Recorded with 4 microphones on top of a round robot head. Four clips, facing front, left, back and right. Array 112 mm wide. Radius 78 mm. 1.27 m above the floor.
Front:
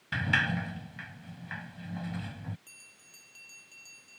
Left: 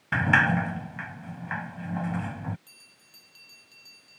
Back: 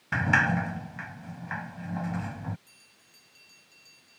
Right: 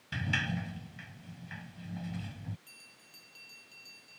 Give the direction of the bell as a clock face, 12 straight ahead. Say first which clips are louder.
Right 1 dB, front 2 dB; 11 o'clock.